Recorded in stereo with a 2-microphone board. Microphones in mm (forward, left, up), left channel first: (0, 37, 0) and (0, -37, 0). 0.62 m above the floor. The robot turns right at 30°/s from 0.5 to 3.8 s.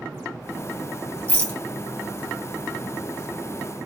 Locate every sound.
1.3 s a rattle: 20° left (ahead or behind), 1.3 m; by 1.6 s 15° left (ahead or behind), 1.3 m